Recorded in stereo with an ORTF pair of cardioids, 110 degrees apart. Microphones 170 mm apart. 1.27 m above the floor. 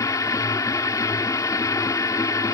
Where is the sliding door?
No sliding door in this recording.